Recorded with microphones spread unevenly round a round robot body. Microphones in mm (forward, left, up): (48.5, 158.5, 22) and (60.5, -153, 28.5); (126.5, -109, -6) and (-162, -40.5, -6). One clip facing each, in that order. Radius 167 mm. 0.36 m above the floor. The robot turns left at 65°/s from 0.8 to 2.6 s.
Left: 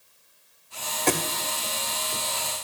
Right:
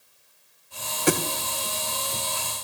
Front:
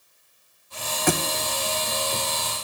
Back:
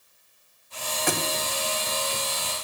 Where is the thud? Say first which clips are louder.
Right 3 dB, front 5 dB; 10° right, 1.1 m; by 1.2 s 20° right, 1.1 m.